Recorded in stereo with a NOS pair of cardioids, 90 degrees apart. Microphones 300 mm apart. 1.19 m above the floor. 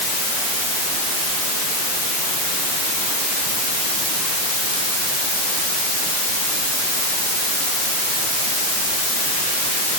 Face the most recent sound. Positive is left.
No sound to turn to.